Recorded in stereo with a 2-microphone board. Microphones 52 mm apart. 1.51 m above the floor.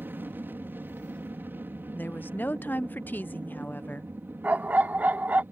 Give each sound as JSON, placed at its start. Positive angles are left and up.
{"t": 0.0, "sound": "an aircraft", "side_deg": -40}
{"t": 1.9, "sound": "a woman speaking", "side_deg": 40}
{"t": 4.4, "sound": "a dog barking", "side_deg": -30}